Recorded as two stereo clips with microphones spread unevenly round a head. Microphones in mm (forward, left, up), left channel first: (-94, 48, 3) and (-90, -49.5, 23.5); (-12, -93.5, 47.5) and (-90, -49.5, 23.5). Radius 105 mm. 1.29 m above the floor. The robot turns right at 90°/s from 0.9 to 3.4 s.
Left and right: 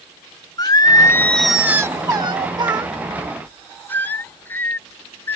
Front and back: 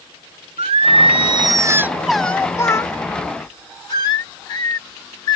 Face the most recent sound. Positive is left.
turn(degrees=5)